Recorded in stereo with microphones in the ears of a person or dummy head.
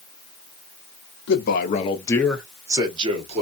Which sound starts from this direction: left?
A man speaking, at 1.3 s.